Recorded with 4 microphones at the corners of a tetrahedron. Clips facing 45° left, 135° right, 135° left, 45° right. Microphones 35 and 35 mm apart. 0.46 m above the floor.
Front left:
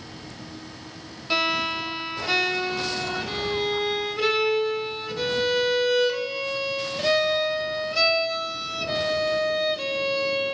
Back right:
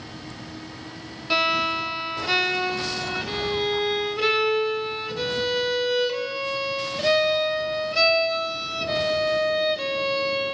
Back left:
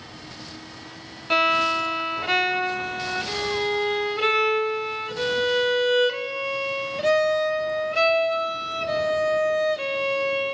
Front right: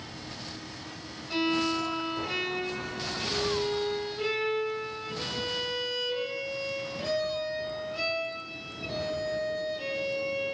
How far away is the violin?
About 2 m.